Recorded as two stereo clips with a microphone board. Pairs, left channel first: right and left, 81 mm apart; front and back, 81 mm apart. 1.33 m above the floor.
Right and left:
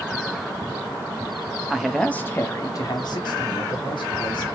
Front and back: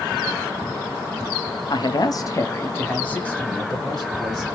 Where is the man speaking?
10° left, 0.7 m; by 4.4 s 85° right, 1.8 m.